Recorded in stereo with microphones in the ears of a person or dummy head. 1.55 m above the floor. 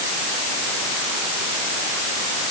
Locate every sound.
Only background noise.